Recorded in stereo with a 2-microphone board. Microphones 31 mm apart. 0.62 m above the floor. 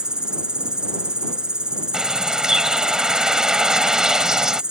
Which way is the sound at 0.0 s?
25° right (ahead or behind).